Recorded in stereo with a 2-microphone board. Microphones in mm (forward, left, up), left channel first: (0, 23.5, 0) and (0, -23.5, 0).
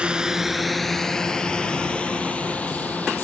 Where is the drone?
25° right (ahead or behind); by 3.2 s 30° left (ahead or behind).